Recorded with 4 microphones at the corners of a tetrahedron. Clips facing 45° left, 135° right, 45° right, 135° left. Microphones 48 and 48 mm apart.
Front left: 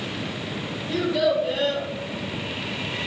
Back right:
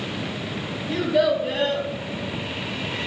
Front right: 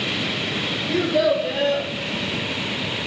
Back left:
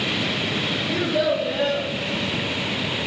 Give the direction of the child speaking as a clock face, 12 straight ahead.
3 o'clock.